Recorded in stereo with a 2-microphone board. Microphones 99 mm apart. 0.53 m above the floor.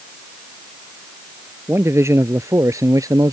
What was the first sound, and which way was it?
A man speaking, 25° right (ahead or behind).